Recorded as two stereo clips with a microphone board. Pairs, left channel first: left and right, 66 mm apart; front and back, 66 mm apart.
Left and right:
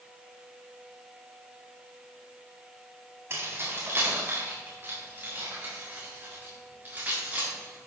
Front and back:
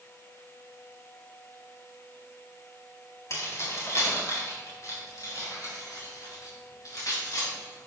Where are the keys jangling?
40° right, 3.5 m; by 7.9 s 25° right, 7.5 m.